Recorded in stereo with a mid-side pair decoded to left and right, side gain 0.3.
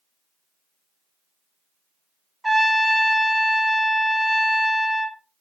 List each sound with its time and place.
2.4 s a trumpet: 15° right, 0.7 m